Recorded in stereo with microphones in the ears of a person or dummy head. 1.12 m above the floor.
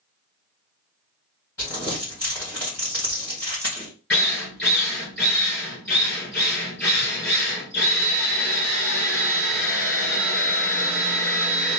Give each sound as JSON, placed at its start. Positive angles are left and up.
{"t": 1.6, "sound": "crumpling", "side_deg": 20, "distance_m": 2.0}
{"t": 4.1, "sound": "a drill", "side_deg": 10, "distance_m": 2.0}